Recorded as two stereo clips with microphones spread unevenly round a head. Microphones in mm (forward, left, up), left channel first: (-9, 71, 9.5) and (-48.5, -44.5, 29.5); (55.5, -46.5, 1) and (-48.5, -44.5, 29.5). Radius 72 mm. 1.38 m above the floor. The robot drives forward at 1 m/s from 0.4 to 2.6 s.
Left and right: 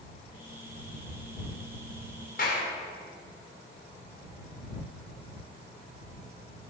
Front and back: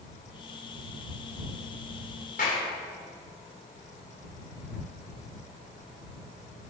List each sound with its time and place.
2.4 s a clap: 35° left, 3 m